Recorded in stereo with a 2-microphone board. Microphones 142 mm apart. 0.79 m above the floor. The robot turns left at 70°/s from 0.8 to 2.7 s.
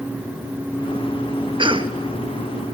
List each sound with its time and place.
1.6 s a cough: 35° right (ahead or behind), 0.9 m; by 2.0 s 30° right (ahead or behind), 0.9 m